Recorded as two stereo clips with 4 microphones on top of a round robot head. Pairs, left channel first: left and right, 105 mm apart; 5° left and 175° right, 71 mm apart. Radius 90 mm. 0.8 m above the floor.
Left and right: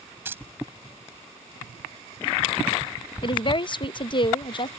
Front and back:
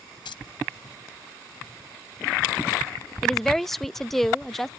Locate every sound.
0.2 s keys jangling: 20° right
3.2 s a woman speaking: 90° left